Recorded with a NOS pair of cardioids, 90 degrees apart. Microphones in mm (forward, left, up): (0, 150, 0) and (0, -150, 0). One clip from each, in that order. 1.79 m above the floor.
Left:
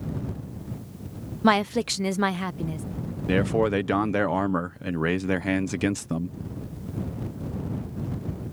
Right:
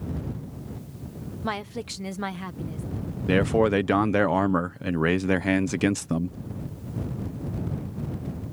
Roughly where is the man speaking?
Ahead.